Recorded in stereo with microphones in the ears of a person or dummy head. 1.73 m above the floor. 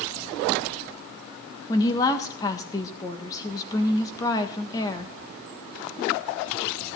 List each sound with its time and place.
1.7 s a woman speaking: 30° left (ahead or behind), 1.5 m